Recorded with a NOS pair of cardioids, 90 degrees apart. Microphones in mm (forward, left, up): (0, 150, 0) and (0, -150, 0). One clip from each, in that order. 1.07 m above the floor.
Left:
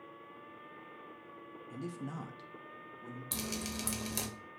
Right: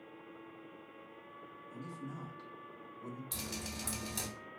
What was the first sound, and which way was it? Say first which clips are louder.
A man speaking: left 4 dB; 70° left.